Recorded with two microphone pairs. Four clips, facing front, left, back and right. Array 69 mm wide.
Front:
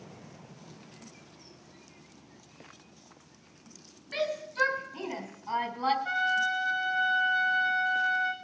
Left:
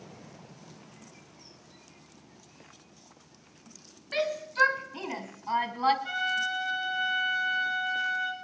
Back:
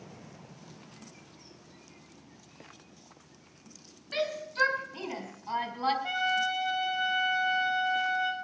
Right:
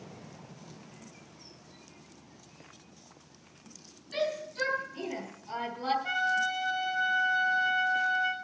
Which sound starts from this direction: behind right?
A trumpet, at 6.0 s.